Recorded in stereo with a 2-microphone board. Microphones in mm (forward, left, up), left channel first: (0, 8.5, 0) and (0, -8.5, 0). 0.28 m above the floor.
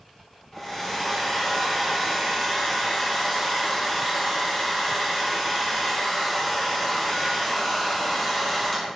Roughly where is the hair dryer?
Left.